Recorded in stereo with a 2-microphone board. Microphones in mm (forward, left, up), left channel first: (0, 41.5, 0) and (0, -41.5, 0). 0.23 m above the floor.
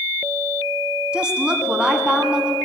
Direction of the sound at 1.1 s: 10° right (ahead or behind).